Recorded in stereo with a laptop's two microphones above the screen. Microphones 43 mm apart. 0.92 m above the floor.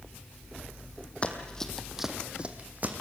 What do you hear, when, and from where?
1.2 s running footsteps: 30° left (ahead or behind), 1.6 m; by 2.9 s 40° right (ahead or behind), 2 m